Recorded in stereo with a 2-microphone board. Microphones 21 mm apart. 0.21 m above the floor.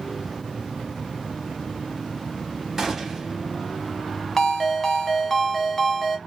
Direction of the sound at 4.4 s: 15° left (ahead or behind).